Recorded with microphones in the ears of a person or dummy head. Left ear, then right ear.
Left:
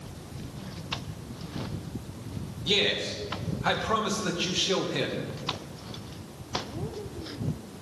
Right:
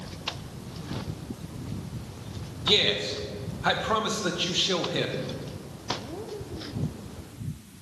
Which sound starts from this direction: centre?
A man speaking, at 2.6 s.